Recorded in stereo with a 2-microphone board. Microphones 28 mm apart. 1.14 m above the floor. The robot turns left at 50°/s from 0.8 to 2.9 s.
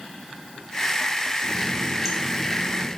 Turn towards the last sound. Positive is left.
turn(degrees=160)